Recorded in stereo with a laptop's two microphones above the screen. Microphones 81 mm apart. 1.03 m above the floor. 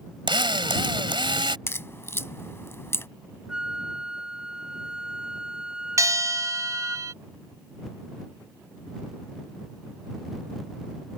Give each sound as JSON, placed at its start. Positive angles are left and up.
{"t": 0.3, "sound": "a drill", "side_deg": -80}
{"t": 1.7, "sound": "a crack", "side_deg": 35}
{"t": 3.5, "sound": "a flute", "side_deg": -10}
{"t": 6.0, "sound": "a bell", "side_deg": -45}